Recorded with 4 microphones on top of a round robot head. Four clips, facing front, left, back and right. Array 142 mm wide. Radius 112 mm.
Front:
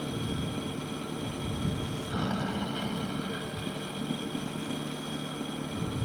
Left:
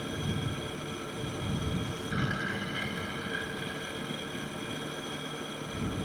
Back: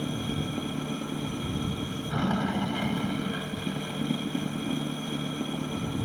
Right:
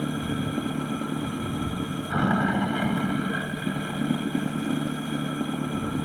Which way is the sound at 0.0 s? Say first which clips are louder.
Right 7 dB, back 2 dB; 105° right.